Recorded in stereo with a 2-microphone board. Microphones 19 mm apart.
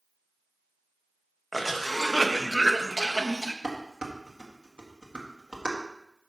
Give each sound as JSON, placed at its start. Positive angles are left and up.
{"t": 1.5, "sound": "a cough", "side_deg": 5, "distance_m": 1.2}
{"t": 3.6, "sound": "dishes clattering", "side_deg": -65, "distance_m": 1.6}